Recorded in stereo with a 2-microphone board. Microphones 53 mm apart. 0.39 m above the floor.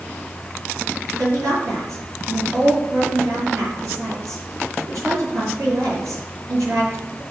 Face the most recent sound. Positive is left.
turn(degrees=-65)  # may be behind; listen again after turning